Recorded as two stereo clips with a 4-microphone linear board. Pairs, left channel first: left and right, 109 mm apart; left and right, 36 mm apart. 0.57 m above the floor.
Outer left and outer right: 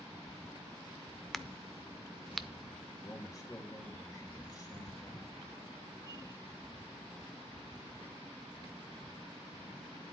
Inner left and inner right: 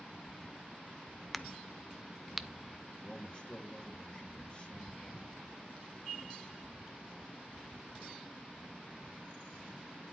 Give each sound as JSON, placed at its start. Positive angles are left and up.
{"t": 1.3, "sound": "a crack", "side_deg": 0, "distance_m": 0.5}
{"t": 3.0, "sound": "a man speaking", "side_deg": 30, "distance_m": 2.5}